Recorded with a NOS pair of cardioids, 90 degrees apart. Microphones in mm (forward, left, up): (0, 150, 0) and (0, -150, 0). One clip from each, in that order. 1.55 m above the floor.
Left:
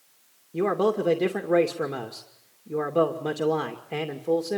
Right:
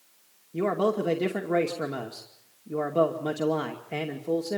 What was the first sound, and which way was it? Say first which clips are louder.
A man speaking: left 2 dB; 5° left.